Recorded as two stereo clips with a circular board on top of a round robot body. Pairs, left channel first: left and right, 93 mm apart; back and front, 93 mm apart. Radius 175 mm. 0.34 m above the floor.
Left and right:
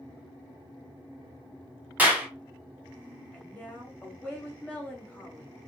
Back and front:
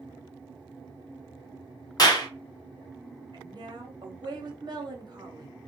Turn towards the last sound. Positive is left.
turn(degrees=20)